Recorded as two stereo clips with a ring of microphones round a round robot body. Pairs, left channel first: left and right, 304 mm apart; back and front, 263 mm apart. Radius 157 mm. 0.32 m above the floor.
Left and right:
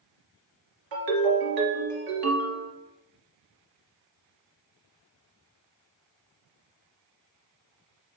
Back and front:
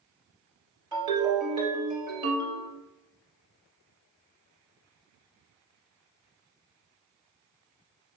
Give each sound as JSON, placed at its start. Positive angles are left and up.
{"t": 0.9, "sound": "a ringtone", "azimuth_deg": -75, "distance_m": 2.5}